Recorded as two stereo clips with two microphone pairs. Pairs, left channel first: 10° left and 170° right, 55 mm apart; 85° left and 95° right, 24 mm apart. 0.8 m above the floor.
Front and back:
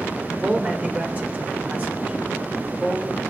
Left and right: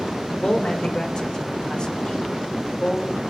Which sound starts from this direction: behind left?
A man speaking, at 0.4 s.